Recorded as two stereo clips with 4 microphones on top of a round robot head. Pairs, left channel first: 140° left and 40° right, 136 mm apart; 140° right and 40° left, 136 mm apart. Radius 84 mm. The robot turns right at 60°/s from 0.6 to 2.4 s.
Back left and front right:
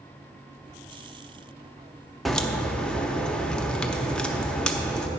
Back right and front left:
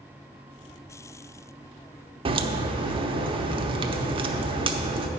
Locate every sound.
2.2 s a crack: 50° left, 0.9 m; by 5.1 s 60° left, 0.9 m